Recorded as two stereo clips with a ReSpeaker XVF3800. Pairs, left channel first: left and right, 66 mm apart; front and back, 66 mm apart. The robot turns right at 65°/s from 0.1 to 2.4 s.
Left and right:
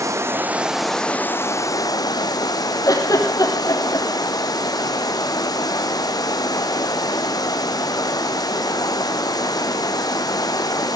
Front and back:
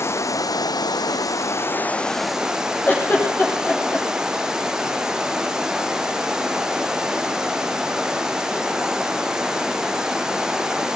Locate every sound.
0.0 s running water: 50° right, 1.1 m; by 11.0 s 100° left, 1.1 m
2.9 s a giggle: 60° left, 6 m